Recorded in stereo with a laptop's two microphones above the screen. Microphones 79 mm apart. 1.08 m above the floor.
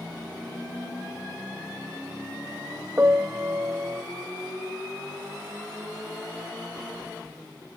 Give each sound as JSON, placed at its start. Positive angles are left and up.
{"t": 3.0, "sound": "a piano", "side_deg": -30}